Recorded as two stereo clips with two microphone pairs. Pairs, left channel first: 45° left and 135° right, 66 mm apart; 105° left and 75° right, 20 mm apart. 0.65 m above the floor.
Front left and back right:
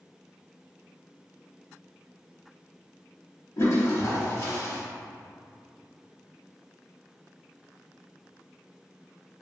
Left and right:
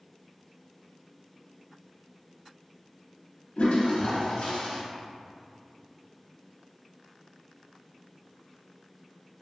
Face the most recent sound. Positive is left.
turn(degrees=80)